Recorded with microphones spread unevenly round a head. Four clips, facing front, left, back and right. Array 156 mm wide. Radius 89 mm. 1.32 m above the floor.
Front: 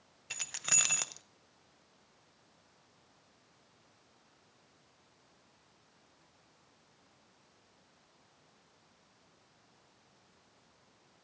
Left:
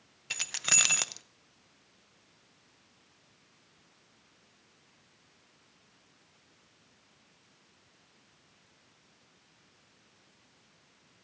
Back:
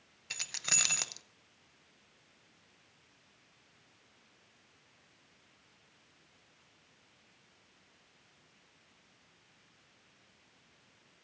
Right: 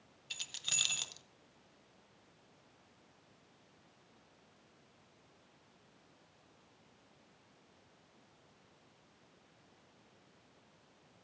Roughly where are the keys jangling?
Left.